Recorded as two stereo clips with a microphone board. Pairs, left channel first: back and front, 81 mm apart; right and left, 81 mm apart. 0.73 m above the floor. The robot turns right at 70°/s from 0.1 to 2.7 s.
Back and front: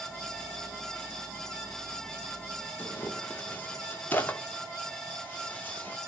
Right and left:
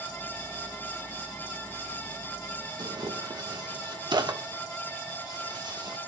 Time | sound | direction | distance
2.8 | tearing paper | 115° left | 1.1 m